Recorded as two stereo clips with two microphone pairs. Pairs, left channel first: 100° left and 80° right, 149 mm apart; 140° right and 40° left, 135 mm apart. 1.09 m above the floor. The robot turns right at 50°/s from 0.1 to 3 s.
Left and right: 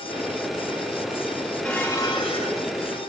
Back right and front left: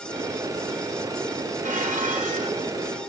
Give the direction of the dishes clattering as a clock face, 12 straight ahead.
12 o'clock.